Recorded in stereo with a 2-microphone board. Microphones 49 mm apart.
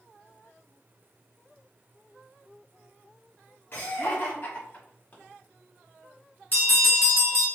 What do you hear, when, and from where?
3.7 s laughter: 45° left (ahead or behind), 1.8 m; by 5.2 s 40° left (ahead or behind), 1.6 m
6.5 s a bell: 45° left (ahead or behind), 2.5 m